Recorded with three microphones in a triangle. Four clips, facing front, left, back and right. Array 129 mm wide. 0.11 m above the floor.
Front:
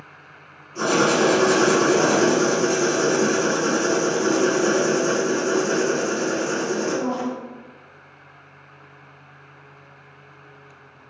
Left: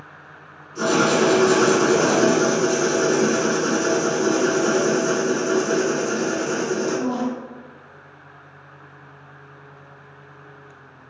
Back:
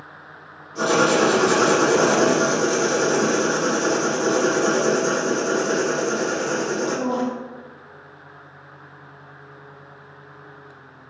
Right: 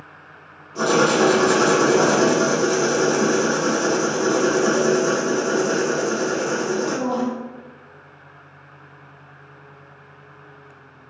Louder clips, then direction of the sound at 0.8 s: Right 1 dB, back 1 dB; 80° right.